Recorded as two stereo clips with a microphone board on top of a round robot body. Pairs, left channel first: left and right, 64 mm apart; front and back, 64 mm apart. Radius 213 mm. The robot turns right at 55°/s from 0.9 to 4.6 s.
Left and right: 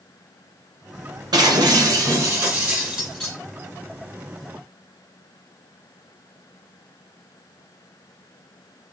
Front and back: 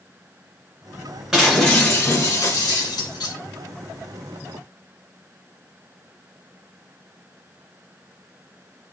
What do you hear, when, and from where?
1.3 s breaking glass: 95° right, 2 m; by 3.4 s 20° left, 2 m